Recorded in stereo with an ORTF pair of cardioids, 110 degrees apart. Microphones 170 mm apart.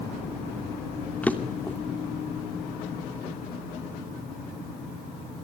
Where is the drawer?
10° left, 2.5 m.